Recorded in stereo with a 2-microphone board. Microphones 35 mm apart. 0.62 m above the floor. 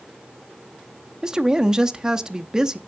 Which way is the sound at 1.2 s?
20° right (ahead or behind).